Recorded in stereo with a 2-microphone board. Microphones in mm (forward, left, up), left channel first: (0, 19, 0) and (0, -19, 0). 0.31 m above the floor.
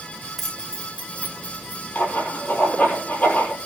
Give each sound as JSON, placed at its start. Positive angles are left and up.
{"t": 0.4, "sound": "keys jangling", "side_deg": 5, "distance_m": 1.0}
{"t": 1.9, "sound": "writing", "side_deg": 60, "distance_m": 6.0}